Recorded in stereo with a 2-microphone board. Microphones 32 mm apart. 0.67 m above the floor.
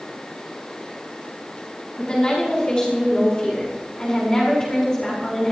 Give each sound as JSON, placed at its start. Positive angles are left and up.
{"t": 2.0, "sound": "a woman speaking", "side_deg": 30, "distance_m": 7.5}